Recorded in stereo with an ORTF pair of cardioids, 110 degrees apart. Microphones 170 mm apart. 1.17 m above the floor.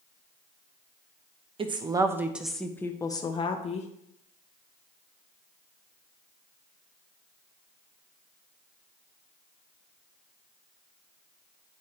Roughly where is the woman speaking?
Ahead right.